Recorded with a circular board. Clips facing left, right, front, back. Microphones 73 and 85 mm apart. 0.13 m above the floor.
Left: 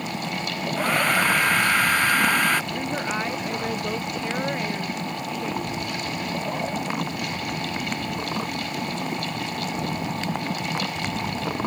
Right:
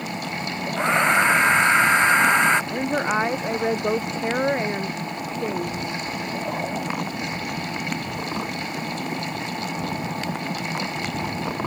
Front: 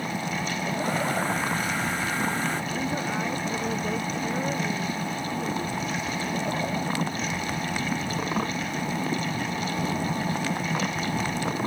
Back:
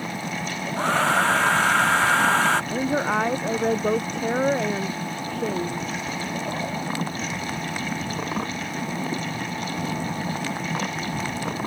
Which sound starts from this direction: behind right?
A woman speaking, at 2.7 s.